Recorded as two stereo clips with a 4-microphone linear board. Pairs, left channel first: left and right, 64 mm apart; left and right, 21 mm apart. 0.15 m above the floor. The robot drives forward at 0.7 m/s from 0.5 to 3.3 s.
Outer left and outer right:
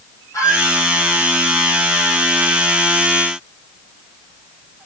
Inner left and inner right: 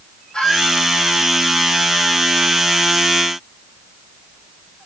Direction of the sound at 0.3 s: 55° left (ahead or behind).